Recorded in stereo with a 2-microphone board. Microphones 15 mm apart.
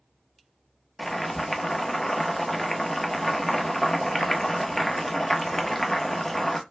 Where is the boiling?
20° left (ahead or behind), 0.7 m.